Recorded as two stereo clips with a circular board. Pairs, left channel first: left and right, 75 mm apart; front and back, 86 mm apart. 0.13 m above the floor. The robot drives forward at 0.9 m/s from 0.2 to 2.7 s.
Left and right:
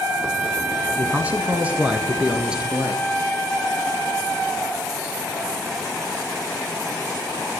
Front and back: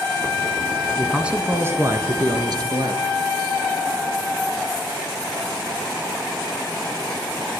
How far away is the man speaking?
About 1.1 m.